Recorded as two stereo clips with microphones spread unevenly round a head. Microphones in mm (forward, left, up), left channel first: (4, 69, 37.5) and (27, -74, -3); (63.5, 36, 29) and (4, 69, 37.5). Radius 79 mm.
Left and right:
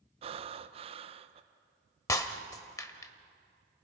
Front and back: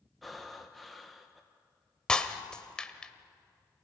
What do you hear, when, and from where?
0.2 s breathing: 115° right, 0.8 m
2.1 s breaking glass: 55° left, 1.2 m